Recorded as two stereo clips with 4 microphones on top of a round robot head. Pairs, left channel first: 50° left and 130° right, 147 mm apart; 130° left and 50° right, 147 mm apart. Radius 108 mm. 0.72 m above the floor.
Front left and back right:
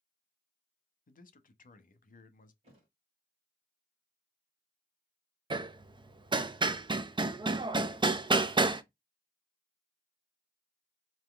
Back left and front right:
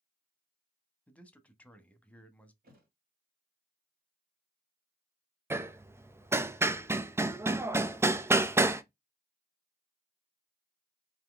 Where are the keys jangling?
I don't hear keys jangling.